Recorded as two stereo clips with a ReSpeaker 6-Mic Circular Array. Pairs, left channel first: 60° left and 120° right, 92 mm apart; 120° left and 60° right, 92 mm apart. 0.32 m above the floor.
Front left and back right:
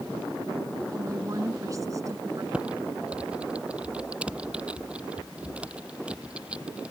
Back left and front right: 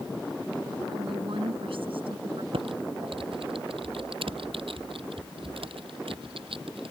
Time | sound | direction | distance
0.9 | a woman speaking | 70° right | ?
2.5 | typing on a keyboard | 40° right | ?